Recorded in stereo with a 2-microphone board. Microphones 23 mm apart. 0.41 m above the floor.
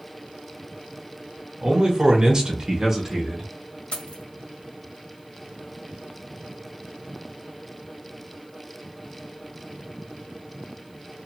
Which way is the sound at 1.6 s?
40° right (ahead or behind).